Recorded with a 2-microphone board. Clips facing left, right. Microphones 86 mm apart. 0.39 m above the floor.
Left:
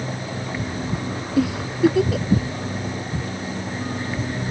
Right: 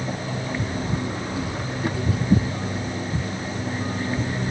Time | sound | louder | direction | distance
1.4 | a giggle | left 8 dB | 70° left (ahead or behind) | ?